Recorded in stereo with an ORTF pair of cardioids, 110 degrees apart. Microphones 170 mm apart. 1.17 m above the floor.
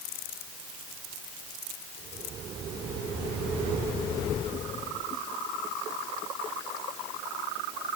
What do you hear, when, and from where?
Only background noise.